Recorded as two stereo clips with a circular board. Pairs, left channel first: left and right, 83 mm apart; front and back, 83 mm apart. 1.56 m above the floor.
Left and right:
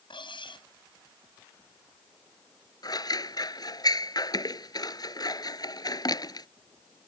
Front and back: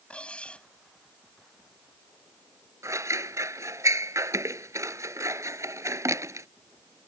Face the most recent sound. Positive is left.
turn(degrees=125)